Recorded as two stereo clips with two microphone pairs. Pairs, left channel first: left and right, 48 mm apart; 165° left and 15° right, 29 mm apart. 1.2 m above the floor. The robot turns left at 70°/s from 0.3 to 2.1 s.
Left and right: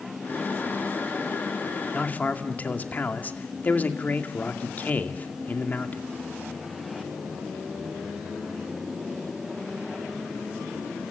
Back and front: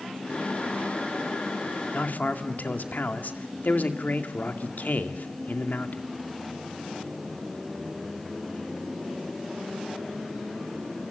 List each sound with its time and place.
1.9 s a man speaking: 155° left, 2 m; by 6.1 s 145° left, 2 m